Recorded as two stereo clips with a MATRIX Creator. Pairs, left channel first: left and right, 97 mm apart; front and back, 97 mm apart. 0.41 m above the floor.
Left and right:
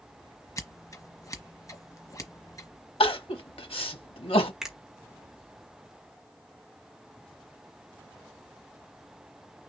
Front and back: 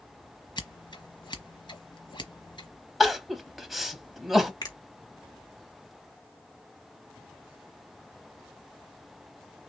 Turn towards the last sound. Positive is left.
turn(degrees=-5)